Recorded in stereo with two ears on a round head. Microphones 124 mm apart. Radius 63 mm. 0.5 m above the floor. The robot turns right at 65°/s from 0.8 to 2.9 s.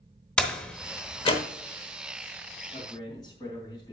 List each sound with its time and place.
0.4 s a door slam: 10° left (ahead or behind), 1.0 m; by 1.4 s 45° left (ahead or behind), 1.0 m
2.7 s a man speaking: 40° left (ahead or behind), 3 m; by 3.9 s 30° left (ahead or behind), 3 m